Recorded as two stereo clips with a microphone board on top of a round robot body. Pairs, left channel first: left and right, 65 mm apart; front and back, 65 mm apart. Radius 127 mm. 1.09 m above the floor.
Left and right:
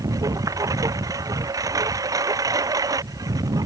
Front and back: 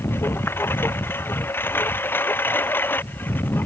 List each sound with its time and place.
0.0 s a lawn mower: 55° right; by 3.7 s 60° right